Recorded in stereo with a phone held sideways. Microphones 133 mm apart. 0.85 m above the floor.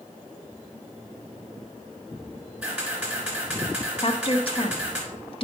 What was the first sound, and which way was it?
A camera shutter, 15° right (ahead or behind).